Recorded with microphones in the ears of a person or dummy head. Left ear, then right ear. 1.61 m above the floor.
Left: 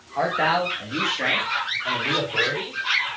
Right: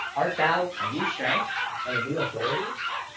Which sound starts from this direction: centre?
A man speaking, at 0.2 s.